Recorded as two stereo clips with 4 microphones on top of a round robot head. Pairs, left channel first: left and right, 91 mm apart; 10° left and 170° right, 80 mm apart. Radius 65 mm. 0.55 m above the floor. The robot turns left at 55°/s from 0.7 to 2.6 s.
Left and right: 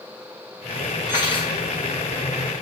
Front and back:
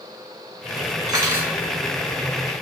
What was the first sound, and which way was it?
Cutlery clinking, 150° left.